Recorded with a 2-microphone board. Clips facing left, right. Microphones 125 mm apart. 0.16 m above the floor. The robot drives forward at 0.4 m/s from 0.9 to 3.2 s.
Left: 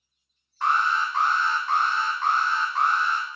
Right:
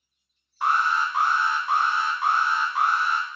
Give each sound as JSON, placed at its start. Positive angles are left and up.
{"t": 0.6, "sound": "an alarm", "side_deg": -10, "distance_m": 0.8}